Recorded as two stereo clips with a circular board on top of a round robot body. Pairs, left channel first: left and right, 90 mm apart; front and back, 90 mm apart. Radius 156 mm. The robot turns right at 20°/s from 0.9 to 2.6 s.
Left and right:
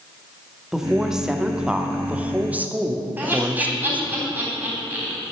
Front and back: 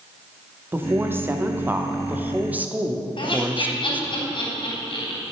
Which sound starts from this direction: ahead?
Laughter, at 3.2 s.